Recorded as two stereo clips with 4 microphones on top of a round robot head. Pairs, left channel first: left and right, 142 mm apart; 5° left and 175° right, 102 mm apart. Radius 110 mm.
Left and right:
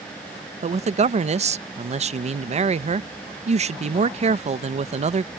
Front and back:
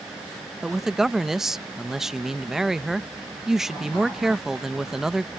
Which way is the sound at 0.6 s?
90° right.